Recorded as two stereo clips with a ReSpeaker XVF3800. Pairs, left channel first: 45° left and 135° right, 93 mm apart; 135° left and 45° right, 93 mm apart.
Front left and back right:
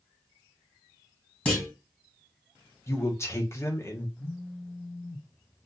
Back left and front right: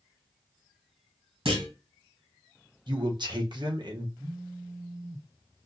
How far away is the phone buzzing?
About 1.8 m.